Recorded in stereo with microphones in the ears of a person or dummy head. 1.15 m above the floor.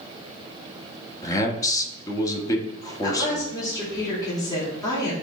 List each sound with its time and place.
1.2 s a man speaking: 25° left (ahead or behind), 1.4 m
3.0 s a woman speaking: 25° left (ahead or behind), 3 m